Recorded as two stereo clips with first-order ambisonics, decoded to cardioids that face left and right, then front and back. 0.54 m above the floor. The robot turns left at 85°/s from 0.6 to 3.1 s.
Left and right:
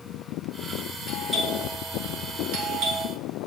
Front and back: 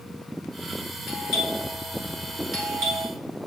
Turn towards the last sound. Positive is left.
turn(degrees=-155)